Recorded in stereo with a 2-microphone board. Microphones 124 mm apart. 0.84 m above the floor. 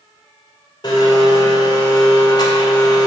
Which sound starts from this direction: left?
A blender, at 0.8 s.